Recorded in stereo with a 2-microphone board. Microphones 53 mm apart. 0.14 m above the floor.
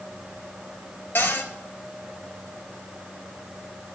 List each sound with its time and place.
1.1 s a cupboard door: 35° left (ahead or behind), 1.3 m